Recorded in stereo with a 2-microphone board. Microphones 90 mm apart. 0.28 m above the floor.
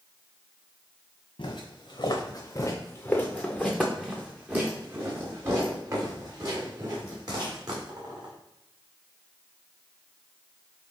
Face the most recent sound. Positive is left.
turn(degrees=-45)  # may be behind; listen again after turning